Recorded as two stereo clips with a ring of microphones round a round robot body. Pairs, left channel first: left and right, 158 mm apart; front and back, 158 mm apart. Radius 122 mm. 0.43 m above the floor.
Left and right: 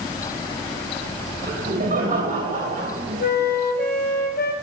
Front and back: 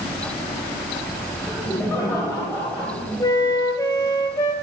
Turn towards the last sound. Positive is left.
turn(degrees=70)